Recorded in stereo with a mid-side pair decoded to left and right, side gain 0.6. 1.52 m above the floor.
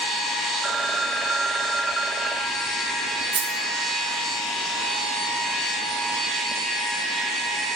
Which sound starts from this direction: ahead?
A phone ringing, at 0.6 s.